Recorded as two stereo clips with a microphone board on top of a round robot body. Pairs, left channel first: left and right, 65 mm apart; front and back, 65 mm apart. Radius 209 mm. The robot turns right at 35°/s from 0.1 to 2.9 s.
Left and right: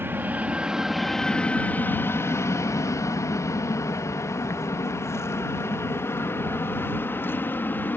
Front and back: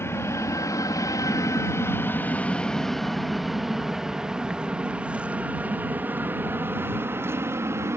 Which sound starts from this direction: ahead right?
An aircraft, at 0.0 s.